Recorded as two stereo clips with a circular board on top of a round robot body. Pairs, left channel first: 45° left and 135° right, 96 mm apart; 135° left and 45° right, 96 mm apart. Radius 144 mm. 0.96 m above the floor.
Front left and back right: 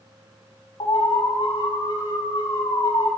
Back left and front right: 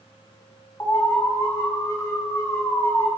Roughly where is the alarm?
Left.